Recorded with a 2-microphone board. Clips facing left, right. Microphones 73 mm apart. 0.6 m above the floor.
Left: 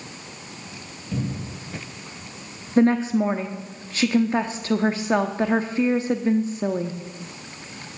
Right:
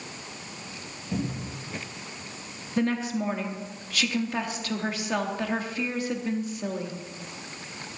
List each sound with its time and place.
1.1 s a cupboard door: 20° right (ahead or behind), 3 m
2.8 s a woman speaking: 30° left (ahead or behind), 0.6 m